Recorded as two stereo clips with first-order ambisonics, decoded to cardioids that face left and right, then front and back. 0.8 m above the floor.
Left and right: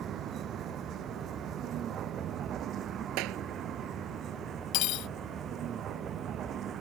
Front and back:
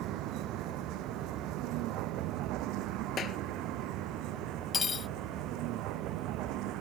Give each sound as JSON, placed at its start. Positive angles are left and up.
{"t": 0.0, "sound": "a vehicle", "azimuth_deg": -145}
{"t": 3.2, "sound": "a clap", "azimuth_deg": -60}
{"t": 4.7, "sound": "cutlery clinking", "azimuth_deg": 65}